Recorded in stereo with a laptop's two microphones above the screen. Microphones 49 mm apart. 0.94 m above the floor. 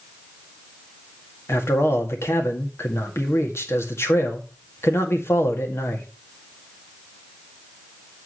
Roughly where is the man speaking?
Left.